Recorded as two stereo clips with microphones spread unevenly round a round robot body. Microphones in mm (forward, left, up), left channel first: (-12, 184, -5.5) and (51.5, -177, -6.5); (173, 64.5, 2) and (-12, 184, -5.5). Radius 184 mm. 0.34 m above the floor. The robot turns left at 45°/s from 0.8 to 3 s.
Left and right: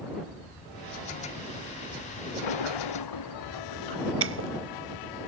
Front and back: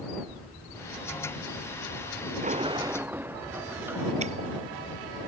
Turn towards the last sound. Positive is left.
turn(degrees=-140)